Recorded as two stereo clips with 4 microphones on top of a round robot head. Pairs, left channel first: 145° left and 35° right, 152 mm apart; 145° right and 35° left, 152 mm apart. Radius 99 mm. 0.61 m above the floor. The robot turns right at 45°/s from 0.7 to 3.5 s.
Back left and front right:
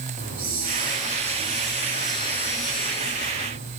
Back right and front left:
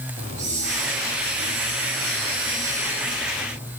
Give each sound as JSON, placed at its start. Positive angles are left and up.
{"t": 0.2, "sound": "a hiss", "azimuth_deg": -10, "distance_m": 6.5}